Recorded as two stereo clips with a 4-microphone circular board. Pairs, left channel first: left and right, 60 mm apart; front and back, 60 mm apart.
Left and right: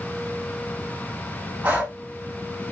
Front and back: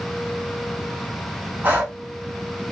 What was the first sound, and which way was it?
Breathing, 135° right.